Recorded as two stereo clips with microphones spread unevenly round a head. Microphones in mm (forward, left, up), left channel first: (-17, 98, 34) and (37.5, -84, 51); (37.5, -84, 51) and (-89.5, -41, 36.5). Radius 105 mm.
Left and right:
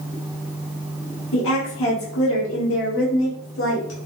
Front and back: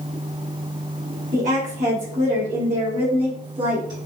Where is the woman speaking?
120° left, 3.5 m; by 4.0 s 95° left, 4 m.